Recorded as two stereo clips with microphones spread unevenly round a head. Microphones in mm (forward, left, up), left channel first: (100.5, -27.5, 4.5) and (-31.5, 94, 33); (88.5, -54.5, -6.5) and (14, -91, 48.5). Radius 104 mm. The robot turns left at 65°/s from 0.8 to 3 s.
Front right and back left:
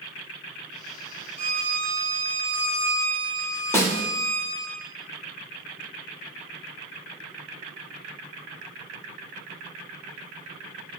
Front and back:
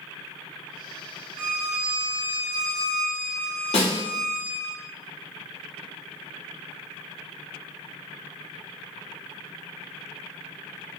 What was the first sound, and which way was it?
A violin, 155° right.